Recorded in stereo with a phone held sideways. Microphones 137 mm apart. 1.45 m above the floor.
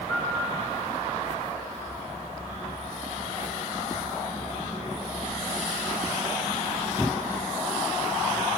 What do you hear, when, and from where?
0.1 s a piano: 40° left (ahead or behind), 4.5 m